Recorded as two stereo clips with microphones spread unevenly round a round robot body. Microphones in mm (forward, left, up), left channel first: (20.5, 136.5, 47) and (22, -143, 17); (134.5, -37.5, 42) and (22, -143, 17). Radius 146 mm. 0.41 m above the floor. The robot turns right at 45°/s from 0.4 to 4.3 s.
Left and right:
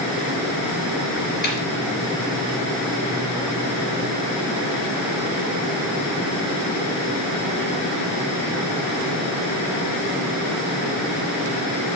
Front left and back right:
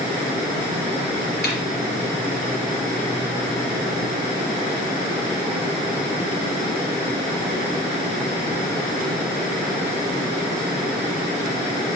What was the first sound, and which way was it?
A snare drum, 35° left.